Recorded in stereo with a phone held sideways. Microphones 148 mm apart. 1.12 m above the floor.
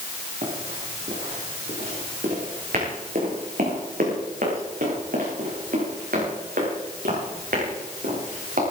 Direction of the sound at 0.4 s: 60° right (ahead or behind).